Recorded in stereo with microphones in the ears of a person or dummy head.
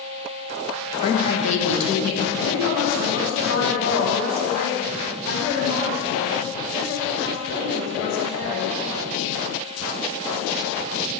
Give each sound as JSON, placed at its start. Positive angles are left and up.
{"t": 1.0, "sound": "a woman speaking", "side_deg": 30, "distance_m": 1.0}
{"t": 2.4, "sound": "a woman speaking", "side_deg": 75, "distance_m": 1.7}